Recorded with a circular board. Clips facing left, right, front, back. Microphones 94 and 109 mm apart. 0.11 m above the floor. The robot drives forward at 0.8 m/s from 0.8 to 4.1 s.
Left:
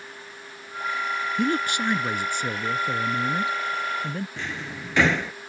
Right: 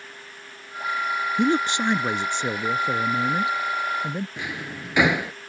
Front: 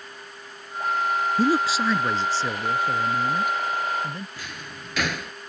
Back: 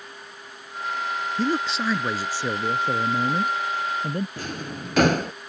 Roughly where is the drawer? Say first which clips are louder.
Right 1 dB, back 6 dB; behind.